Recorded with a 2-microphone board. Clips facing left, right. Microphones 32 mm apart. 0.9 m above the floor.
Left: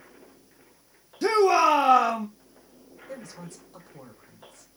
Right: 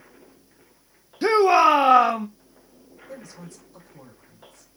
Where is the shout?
25° right (ahead or behind), 0.5 m.